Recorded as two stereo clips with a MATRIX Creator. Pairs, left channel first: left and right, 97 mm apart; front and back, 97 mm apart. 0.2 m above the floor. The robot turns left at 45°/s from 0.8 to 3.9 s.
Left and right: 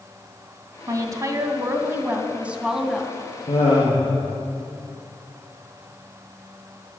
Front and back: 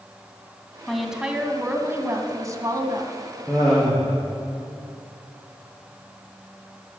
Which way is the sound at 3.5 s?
85° left.